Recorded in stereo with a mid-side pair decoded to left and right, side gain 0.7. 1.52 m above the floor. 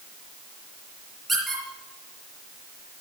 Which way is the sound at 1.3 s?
10° right.